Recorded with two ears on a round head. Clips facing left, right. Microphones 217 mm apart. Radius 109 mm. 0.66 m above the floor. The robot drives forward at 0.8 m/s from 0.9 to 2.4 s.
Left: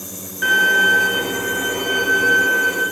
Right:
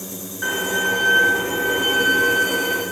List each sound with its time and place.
0.4 s a violin: 40° left (ahead or behind), 1.9 m; by 2.8 s 25° left (ahead or behind), 3 m